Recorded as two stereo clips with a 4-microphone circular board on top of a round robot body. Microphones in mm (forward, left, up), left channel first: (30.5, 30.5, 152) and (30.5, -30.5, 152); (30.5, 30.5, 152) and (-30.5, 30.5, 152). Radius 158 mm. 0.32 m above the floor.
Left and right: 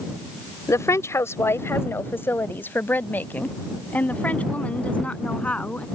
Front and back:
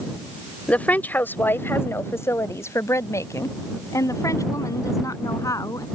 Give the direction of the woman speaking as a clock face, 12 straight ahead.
10 o'clock.